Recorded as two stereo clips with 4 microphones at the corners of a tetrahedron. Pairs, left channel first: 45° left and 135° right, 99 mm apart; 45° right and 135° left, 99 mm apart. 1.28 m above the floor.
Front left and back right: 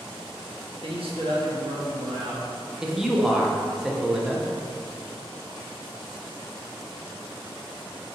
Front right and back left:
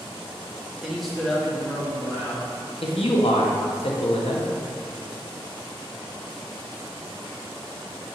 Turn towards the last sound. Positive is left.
turn(degrees=-50)